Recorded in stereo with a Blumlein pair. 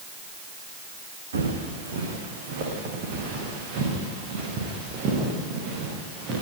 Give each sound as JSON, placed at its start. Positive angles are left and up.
{"t": 1.3, "sound": "footsteps", "azimuth_deg": -60, "distance_m": 5.5}